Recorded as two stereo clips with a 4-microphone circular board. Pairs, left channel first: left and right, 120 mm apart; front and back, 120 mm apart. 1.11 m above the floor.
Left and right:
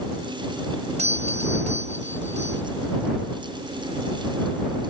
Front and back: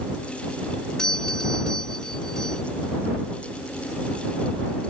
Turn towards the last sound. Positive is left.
turn(degrees=-85)